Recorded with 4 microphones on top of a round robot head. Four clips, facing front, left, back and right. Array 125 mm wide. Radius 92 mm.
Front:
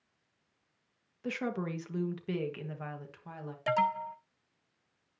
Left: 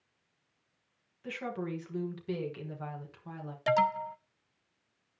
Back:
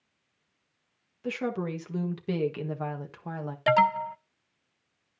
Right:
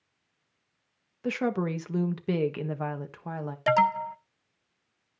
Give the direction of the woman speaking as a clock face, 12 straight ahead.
3 o'clock.